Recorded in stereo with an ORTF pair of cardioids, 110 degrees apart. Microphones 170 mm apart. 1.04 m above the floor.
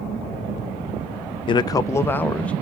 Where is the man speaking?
30° left, 0.5 m; by 2.5 s 5° left, 0.9 m.